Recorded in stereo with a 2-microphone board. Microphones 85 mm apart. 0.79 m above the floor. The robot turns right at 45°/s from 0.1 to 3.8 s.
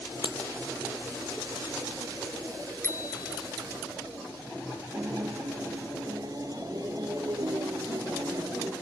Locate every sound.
0.2 s breaking glass: 75° left (ahead or behind); by 0.4 s 70° left (ahead or behind)
2.8 s a bicycle bell: 30° left; by 3.5 s 60° left
4.9 s a guitar: 50° right (ahead or behind)